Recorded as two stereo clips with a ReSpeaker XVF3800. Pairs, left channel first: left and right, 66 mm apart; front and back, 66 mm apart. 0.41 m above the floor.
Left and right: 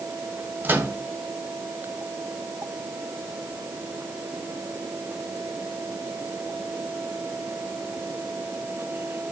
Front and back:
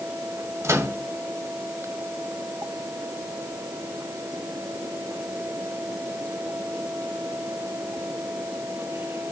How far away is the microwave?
About 2 m.